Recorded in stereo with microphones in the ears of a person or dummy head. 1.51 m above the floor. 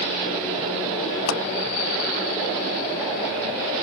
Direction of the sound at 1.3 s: 70° left (ahead or behind).